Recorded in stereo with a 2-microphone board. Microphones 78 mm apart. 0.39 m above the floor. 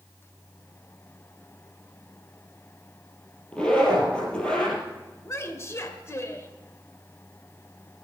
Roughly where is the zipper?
Centre.